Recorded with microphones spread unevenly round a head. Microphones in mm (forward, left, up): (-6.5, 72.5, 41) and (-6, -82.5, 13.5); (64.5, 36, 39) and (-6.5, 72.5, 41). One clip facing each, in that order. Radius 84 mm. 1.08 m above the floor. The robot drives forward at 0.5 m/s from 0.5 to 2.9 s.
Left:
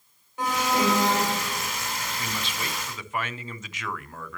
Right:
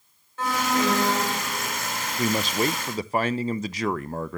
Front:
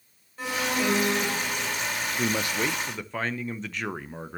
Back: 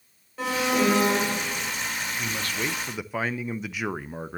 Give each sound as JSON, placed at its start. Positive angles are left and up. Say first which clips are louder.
{"t": 0.4, "sound": "an alarm", "louder": "even, back 4 dB", "azimuth_deg": 165, "distance_m": 3.5}
{"t": 2.2, "sound": "a man speaking", "louder": "right 10 dB, front 6 dB", "azimuth_deg": -70, "distance_m": 0.5}